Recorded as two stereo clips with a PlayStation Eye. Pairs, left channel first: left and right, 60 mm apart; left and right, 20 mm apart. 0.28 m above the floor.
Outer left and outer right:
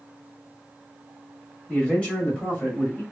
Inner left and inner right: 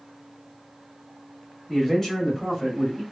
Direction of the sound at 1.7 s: 15° left (ahead or behind).